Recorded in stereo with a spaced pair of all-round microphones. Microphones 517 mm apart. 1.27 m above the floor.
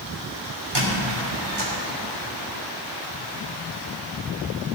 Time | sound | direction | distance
0.8 | a squeak | 55° right (ahead or behind) | 3.5 m